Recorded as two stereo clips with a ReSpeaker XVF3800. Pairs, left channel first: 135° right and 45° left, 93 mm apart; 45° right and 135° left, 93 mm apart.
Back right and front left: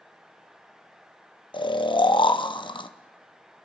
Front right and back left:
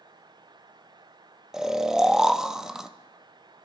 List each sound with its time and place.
1.5 s snoring: 140° right, 0.6 m